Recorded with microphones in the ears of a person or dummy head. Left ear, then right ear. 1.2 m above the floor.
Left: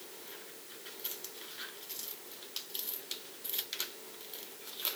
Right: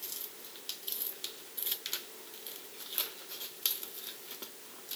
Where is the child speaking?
No child speaking in this recording.